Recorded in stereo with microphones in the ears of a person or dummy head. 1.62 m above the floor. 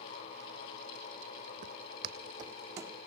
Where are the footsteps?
40° right (ahead or behind), 2.5 m; by 3.0 s 15° right (ahead or behind), 3.5 m.